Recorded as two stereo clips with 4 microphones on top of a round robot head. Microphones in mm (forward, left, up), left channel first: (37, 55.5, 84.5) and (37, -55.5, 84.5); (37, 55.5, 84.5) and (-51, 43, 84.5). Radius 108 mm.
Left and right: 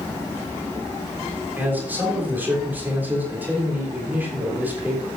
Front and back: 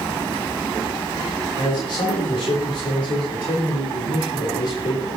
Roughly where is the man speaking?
Ahead.